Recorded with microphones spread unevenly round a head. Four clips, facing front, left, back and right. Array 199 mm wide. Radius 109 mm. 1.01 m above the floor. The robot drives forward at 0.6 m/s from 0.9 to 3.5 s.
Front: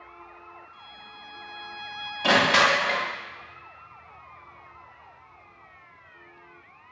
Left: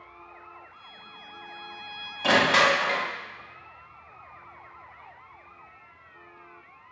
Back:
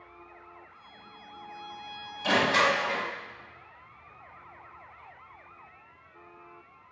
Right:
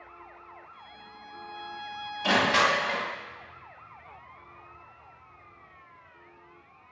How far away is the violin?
About 2 m.